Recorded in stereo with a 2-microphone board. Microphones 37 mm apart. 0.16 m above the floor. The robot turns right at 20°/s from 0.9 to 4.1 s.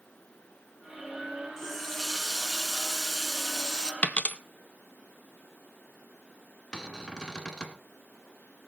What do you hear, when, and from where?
1.6 s a running tap: 155° left, 1.3 m; by 3.9 s 155° right, 1.3 m
4.0 s a dropped coin: 45° left (ahead or behind), 0.7 m; by 4.4 s 50° left (ahead or behind), 0.7 m
6.7 s a cupboard door: 25° left (ahead or behind), 1.7 m